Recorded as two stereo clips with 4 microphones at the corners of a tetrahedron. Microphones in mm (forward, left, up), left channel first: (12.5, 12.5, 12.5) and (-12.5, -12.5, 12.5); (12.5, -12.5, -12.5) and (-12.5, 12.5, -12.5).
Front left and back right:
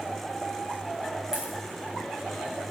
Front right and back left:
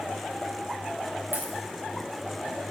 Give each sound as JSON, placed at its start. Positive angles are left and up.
{"t": 1.3, "sound": "a dropped coin", "azimuth_deg": 150, "distance_m": 2.0}